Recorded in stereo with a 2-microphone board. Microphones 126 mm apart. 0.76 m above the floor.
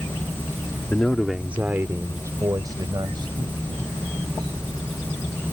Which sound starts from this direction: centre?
A man speaking, at 0.9 s.